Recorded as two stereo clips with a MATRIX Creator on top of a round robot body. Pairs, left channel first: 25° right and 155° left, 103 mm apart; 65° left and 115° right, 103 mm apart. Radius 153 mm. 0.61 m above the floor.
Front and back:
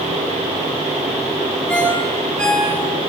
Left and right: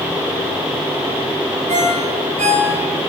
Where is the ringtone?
105° right, 7.5 m.